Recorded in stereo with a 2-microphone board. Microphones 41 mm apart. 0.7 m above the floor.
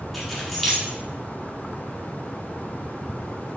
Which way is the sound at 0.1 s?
5° left (ahead or behind).